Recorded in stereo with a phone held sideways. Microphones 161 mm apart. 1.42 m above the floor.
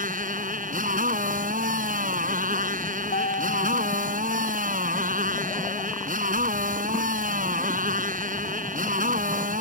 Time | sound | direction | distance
0.0 | a motorcycle | 60° right (ahead or behind) | ?
3.1 | a guitar | 65° left (ahead or behind) | ?